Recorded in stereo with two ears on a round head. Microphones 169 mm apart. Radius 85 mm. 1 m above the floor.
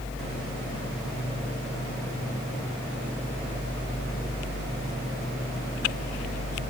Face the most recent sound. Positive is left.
No sound to turn to.